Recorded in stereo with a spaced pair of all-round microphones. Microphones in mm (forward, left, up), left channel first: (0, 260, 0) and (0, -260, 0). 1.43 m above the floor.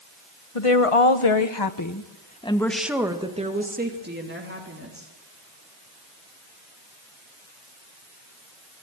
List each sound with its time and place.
0.6 s a woman speaking: 85° left, 1.5 m; by 5.1 s 25° right (ahead or behind), 3.5 m